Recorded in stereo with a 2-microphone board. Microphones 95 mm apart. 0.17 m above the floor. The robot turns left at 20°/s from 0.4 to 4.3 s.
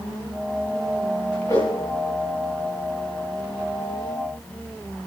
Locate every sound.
1.5 s a whoosh: 30° left (ahead or behind), 7.5 m; by 1.7 s 25° left (ahead or behind), 7.5 m